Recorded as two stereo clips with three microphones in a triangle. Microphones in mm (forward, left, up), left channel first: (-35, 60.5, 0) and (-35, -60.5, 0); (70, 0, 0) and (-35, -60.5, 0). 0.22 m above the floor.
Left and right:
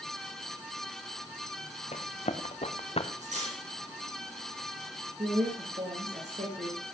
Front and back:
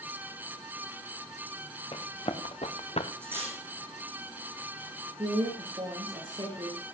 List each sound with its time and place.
1.9 s running footsteps: 70° left, 2.5 m; by 3.1 s 55° left, 1.3 m
3.2 s cutlery clinking: 75° right, 6 m
5.2 s a woman speaking: 100° right, 5.5 m